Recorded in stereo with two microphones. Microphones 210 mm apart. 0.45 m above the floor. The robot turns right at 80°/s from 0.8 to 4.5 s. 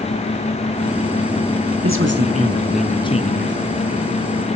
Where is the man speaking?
75° right, 4 m; by 3.6 s 60° left, 4 m.